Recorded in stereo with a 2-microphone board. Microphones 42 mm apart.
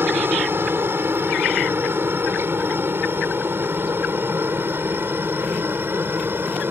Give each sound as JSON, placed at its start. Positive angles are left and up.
{"t": 0.0, "sound": "a helicopter", "side_deg": -65}